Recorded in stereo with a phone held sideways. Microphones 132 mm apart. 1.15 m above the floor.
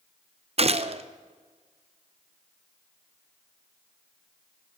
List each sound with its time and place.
0.6 s a gunshot: 50° right (ahead or behind), 0.6 m